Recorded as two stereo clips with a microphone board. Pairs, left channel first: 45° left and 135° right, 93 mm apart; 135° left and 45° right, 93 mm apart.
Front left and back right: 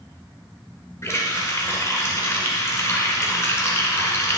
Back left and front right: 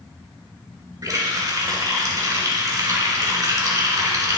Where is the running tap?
5° right, 1.5 m.